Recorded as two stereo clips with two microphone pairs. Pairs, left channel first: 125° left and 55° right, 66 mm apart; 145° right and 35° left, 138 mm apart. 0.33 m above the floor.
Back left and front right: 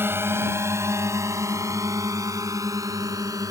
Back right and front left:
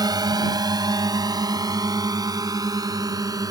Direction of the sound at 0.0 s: 15° right.